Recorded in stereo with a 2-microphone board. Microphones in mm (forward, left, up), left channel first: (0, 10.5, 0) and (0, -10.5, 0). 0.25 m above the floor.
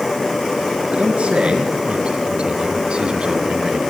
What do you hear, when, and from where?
0.9 s a man speaking: 75° right (ahead or behind), 4.5 m; by 3.9 s 45° right (ahead or behind), 2.0 m